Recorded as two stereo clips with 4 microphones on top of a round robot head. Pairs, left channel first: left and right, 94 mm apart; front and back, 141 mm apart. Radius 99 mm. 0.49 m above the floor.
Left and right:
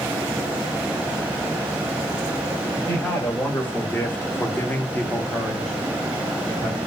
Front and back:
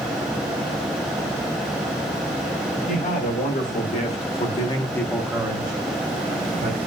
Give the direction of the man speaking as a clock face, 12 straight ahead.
11 o'clock.